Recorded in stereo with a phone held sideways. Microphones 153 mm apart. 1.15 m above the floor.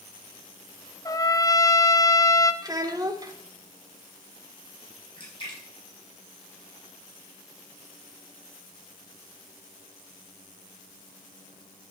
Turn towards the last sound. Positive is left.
turn(degrees=35)  # may be behind; listen again after turning